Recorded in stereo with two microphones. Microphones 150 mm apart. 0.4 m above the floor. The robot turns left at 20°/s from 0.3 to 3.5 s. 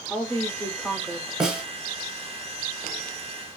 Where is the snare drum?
5° right (ahead or behind), 0.8 m; by 1.6 s 10° right (ahead or behind), 0.8 m.